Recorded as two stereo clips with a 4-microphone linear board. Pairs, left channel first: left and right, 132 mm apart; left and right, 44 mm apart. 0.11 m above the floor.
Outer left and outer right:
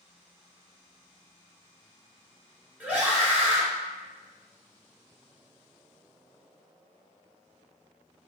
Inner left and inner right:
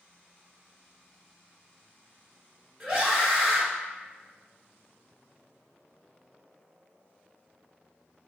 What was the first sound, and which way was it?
A scream, 10° right (ahead or behind).